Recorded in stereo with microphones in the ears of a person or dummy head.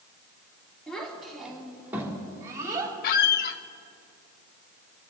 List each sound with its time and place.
0.9 s a child speaking: 5° left (ahead or behind), 3.5 m; by 2.9 s 25° right (ahead or behind), 3.5 m
3.0 s a squeak: 50° left (ahead or behind), 0.8 m